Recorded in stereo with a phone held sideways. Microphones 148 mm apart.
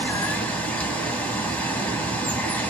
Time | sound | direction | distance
0.0 | running water | 10° left (ahead or behind) | 1.2 m